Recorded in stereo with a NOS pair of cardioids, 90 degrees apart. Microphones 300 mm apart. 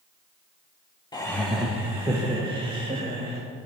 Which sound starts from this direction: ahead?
Laughter, at 1.1 s.